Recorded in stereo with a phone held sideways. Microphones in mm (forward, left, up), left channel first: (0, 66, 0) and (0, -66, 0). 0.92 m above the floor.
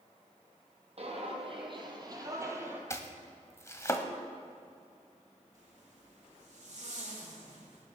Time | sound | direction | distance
1.0 | footsteps | 50° right (ahead or behind) | 1.8 m
2.9 | chopping | 25° left (ahead or behind) | 0.8 m
5.5 | a zipper | 60° right (ahead or behind) | 2.5 m